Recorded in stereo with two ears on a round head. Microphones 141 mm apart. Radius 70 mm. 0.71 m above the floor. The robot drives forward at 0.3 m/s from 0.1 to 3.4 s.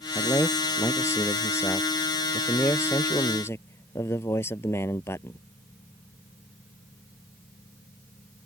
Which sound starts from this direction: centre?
A man speaking, at 0.1 s.